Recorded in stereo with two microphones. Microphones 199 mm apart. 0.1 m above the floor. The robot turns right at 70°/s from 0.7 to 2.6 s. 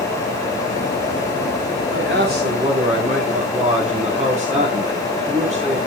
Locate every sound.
1.9 s a man speaking: 80° right, 8 m; by 5.8 s 35° right, 8 m